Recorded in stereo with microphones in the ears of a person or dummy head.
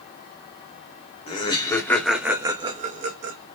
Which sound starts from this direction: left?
Laughter, at 1.3 s.